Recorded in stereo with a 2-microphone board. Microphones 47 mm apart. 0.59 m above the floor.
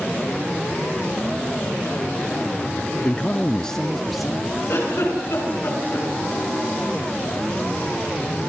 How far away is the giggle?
About 8 m.